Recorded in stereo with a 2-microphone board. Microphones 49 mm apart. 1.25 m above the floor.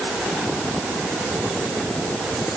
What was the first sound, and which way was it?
Only background noise.